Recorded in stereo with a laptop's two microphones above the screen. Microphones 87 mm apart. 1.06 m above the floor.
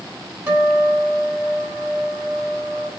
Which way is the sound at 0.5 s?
35° right (ahead or behind).